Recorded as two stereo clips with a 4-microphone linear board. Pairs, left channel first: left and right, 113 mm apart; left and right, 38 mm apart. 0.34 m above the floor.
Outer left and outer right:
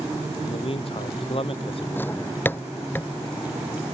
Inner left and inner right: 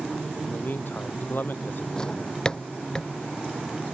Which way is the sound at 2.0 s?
15° left (ahead or behind).